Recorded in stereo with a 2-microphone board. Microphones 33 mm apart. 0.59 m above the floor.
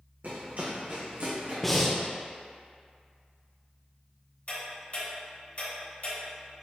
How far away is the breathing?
About 0.6 m.